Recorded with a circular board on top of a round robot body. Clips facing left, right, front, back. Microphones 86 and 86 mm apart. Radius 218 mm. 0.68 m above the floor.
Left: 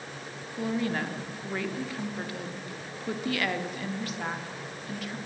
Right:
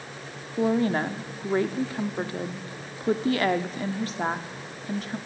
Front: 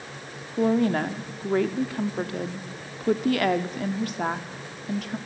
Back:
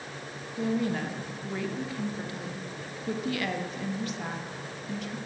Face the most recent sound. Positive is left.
turn(degrees=-35)